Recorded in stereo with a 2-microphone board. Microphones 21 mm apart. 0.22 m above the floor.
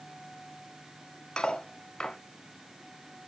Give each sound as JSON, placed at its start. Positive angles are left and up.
{"t": 1.4, "sound": "cutlery clinking", "side_deg": 45, "distance_m": 0.9}